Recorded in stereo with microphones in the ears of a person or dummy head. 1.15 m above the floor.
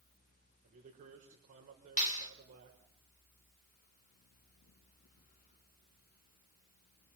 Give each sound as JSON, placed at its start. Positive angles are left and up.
{"t": 0.6, "sound": "a man speaking", "side_deg": -45, "distance_m": 4.5}
{"t": 2.0, "sound": "a clap", "side_deg": 40, "distance_m": 2.5}